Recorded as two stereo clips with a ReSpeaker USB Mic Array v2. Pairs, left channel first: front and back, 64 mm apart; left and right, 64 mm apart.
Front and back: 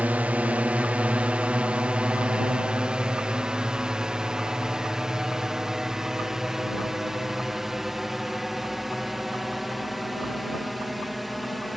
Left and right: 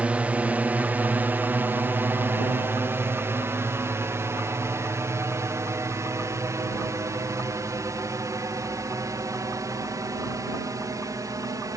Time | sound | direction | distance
0.0 | a drone | 135° right | ?